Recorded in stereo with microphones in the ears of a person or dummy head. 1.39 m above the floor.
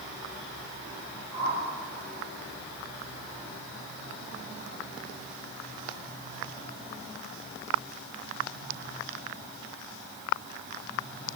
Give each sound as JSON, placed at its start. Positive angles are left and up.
{"t": 1.3, "sound": "a whoosh", "side_deg": -35, "distance_m": 8.5}